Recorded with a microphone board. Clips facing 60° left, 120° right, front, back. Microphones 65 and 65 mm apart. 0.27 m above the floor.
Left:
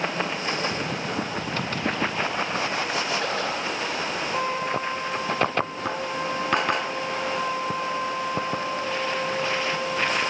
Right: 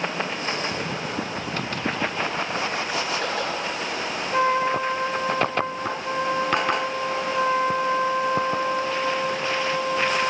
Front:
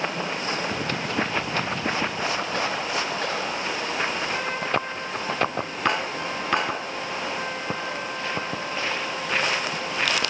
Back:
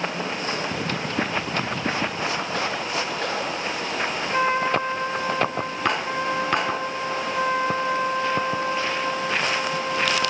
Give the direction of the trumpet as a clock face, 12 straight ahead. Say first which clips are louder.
Right 8 dB, back 5 dB; 4 o'clock.